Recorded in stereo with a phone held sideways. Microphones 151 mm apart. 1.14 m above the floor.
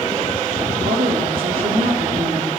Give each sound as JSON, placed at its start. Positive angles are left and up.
{"t": 0.8, "sound": "a woman speaking", "side_deg": -70, "distance_m": 2.0}